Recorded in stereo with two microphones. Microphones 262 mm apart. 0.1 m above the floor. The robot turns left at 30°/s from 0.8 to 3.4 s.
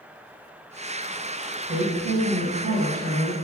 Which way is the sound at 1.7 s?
20° right.